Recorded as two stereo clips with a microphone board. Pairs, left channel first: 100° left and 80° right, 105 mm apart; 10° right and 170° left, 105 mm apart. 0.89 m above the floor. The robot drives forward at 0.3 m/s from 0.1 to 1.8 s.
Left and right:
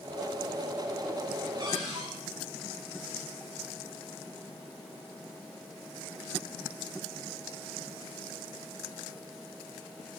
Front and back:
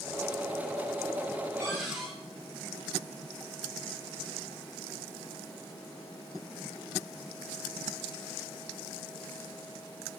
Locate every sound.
1.6 s a cupboard door: 125° right, 6.5 m